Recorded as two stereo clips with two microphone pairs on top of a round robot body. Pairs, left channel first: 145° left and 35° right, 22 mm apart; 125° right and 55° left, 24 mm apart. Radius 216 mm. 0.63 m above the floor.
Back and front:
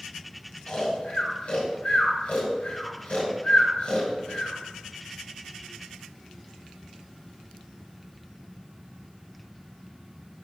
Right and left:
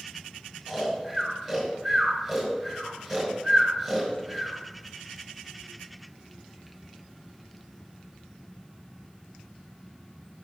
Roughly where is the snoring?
Behind left.